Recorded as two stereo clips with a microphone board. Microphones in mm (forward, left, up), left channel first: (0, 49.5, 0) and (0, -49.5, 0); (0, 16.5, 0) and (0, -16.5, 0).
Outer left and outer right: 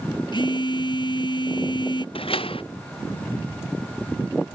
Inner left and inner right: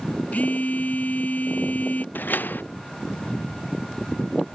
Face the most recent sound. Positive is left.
turn(degrees=60)  # may be behind; listen again after turning